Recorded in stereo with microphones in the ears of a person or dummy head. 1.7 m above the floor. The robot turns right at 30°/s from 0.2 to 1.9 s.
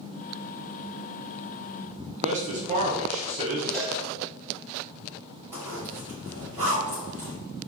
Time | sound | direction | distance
2.2 | a man speaking | 35° right (ahead or behind) | 1.0 m
3.7 | a cowbell | 5° left (ahead or behind) | 1.0 m
5.5 | a zipper | 10° right (ahead or behind) | 1.7 m